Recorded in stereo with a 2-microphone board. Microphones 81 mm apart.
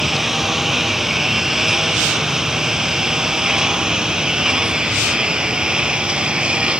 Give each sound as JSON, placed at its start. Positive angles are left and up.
{"t": 0.0, "sound": "a lawn mower", "side_deg": -5}